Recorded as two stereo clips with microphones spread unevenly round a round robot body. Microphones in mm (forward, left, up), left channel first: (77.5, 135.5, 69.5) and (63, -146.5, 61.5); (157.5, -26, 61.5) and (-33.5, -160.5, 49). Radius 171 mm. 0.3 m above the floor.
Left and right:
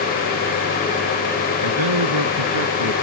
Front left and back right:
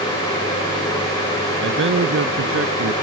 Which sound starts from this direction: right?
A man speaking, at 1.6 s.